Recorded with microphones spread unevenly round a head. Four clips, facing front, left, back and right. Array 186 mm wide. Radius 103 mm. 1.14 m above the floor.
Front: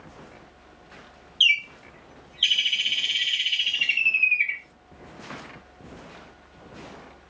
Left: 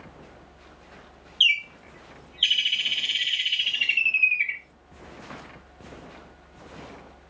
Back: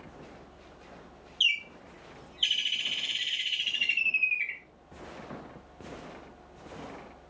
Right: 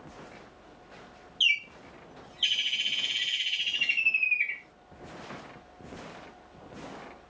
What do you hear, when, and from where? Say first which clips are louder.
1.4 s a bird: left 4 dB, front 8 dB; 85° left, 2.0 m